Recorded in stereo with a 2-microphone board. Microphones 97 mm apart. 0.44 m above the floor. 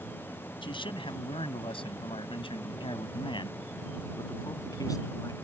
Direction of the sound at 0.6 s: 60° left (ahead or behind).